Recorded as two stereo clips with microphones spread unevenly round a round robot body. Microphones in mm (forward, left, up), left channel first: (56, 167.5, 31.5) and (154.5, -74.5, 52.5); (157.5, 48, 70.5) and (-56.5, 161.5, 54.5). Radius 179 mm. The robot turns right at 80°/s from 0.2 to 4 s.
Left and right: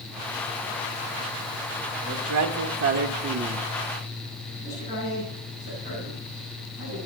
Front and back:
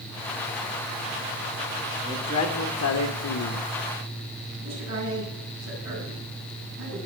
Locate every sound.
2.1 s a man speaking: 125° right, 1.2 m; by 3.7 s 5° left, 1.2 m
4.6 s a man speaking: 150° right, 9 m